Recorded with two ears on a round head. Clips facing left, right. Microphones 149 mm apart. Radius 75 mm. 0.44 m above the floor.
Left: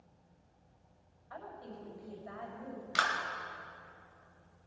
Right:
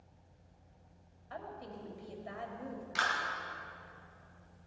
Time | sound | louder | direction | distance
1.3 | a woman speaking | right 2 dB | 30° right (ahead or behind) | 2.5 m
3.0 | a clap | left 2 dB | 65° left (ahead or behind) | 1.8 m